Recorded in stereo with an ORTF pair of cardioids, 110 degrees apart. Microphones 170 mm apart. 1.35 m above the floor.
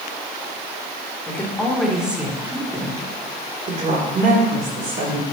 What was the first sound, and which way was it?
A woman speaking, 10° left.